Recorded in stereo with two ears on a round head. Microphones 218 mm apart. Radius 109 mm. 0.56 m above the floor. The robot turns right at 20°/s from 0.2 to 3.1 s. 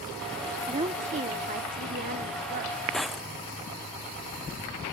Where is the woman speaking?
145° right; by 2.8 s 105° right.